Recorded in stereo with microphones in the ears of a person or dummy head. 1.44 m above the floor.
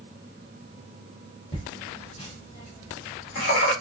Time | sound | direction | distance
1.5 | laughter | 30° left (ahead or behind) | 2 m